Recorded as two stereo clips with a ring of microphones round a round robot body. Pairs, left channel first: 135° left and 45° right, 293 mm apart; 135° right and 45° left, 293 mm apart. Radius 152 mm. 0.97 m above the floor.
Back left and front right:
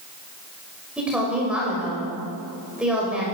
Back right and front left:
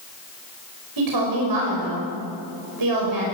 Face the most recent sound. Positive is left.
turn(degrees=40)